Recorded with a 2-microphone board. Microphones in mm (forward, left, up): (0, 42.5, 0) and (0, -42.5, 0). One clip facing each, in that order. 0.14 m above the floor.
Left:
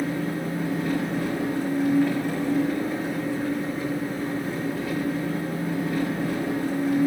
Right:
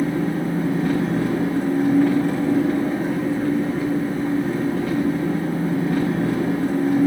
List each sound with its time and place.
0.0 s an engine running: 60° right (ahead or behind), 5.5 m